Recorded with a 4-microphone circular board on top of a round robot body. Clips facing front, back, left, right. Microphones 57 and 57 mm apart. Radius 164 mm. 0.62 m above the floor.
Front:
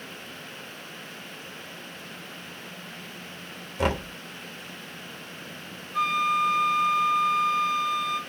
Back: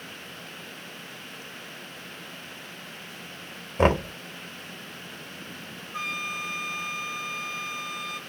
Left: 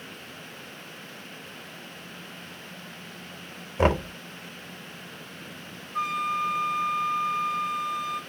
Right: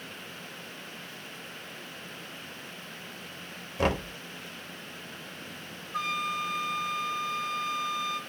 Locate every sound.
3.8 s knocking: 145° left, 1.0 m
5.9 s a flute: 95° right, 0.7 m